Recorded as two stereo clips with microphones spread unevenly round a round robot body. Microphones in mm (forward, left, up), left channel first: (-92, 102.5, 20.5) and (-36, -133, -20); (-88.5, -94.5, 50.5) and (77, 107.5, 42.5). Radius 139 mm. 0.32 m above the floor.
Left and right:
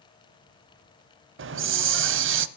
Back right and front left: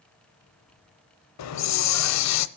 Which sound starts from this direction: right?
A hiss, at 1.4 s.